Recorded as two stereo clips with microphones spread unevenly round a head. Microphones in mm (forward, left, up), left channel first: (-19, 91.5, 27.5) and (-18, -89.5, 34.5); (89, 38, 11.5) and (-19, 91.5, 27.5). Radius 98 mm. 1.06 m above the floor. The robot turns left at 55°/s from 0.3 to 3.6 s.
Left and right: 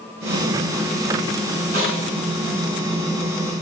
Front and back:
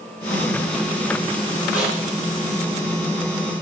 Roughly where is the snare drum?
Ahead right.